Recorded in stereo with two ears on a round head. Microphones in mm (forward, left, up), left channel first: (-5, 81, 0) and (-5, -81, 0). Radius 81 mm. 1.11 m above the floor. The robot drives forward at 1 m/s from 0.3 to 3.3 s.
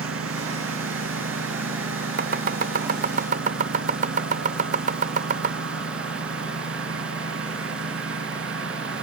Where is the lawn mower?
85° right; by 9.0 s 80° right.